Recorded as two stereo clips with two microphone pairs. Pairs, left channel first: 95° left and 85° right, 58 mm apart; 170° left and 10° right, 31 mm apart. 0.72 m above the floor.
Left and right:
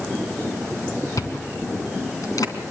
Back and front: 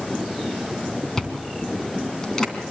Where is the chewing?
95° left, 3 m.